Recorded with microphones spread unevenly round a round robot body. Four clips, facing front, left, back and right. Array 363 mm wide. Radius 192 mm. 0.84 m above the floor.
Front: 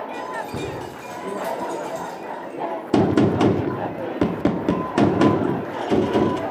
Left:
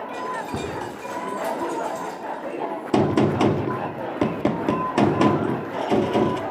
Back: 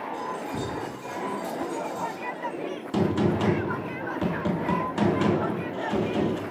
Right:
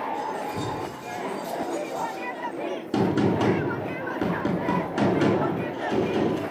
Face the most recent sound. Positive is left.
turn(degrees=20)